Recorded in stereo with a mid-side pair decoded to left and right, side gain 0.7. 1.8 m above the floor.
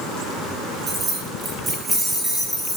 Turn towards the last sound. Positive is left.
turn(degrees=0)